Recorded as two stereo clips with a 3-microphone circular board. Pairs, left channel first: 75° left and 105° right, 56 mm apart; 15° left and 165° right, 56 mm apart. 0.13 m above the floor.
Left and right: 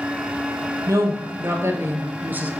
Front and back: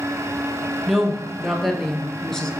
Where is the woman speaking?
75° right, 3 m; by 2.5 s 55° right, 1.5 m.